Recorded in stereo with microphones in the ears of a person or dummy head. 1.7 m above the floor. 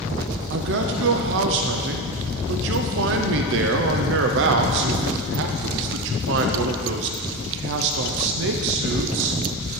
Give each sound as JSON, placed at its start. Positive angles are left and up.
{"t": 0.5, "sound": "a man speaking", "side_deg": -65, "distance_m": 0.7}